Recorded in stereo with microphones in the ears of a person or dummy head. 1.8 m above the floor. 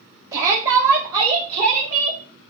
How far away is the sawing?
I don't hear sawing.